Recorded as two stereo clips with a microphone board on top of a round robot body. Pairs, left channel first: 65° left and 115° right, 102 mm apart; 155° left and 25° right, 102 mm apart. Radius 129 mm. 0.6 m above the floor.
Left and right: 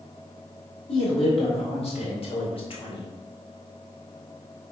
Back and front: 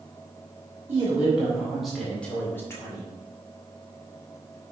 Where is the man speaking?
45° left, 2.5 m; by 3.1 s 100° left, 2.5 m.